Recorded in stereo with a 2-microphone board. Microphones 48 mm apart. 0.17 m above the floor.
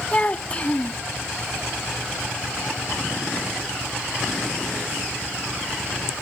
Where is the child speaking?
30° left (ahead or behind).